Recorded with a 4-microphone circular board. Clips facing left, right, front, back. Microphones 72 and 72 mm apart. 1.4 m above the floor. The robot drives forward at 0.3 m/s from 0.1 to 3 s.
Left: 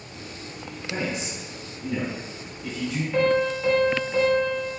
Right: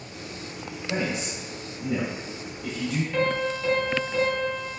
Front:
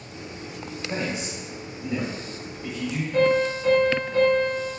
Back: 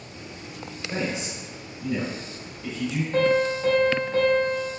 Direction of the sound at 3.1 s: 170° left.